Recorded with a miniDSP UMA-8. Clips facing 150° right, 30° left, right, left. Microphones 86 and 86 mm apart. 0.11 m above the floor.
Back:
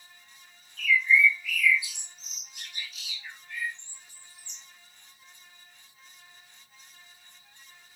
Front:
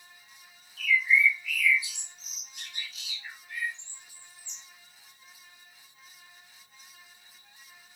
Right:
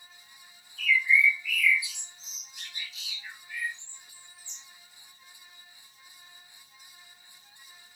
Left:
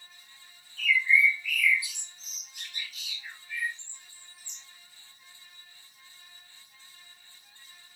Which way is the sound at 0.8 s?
20° right.